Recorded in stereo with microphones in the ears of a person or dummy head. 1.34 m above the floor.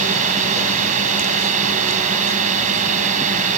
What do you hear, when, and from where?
0.0 s a drone: 40° right (ahead or behind)